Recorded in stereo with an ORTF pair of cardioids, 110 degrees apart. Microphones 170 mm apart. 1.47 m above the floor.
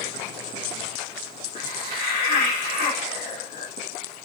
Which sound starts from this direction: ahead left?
A hiss, at 1.6 s.